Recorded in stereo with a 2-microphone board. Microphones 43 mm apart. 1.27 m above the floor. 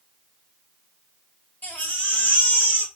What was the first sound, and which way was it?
A baby crying, 40° left (ahead or behind).